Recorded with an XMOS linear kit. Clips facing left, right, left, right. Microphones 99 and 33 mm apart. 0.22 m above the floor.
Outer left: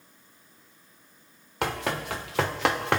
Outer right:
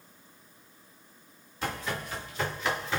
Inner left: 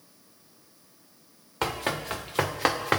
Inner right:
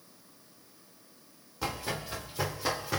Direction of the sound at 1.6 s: 75° left (ahead or behind).